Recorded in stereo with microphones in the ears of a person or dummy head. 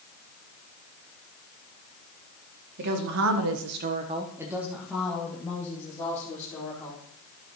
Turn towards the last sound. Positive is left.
turn(degrees=15)  # may be behind; listen again after turning